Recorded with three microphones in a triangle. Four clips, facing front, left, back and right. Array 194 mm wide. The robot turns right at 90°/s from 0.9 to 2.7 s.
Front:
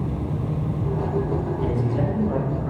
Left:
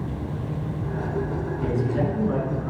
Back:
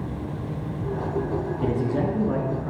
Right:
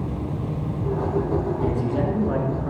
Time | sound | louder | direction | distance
1.6 | a man speaking | right 1 dB, even | 175° left | 3 m